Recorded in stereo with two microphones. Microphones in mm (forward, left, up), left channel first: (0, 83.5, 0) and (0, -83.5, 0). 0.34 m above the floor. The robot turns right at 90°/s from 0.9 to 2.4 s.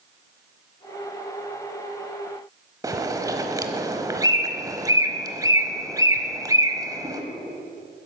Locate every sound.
2.8 s a bird: 20° right (ahead or behind), 1.0 m